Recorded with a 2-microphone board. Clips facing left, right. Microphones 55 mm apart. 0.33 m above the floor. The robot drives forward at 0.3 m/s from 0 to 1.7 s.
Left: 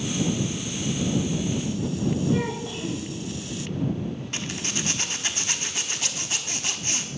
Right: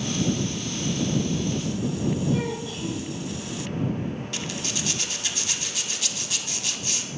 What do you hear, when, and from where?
2.3 s a child speaking: 40° left (ahead or behind), 0.7 m
4.3 s a zipper: 30° left (ahead or behind), 0.5 m